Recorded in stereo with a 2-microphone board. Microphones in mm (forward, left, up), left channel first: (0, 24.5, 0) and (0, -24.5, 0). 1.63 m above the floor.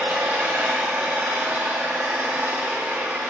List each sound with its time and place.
0.0 s an engine running: 45° right (ahead or behind), 1.2 m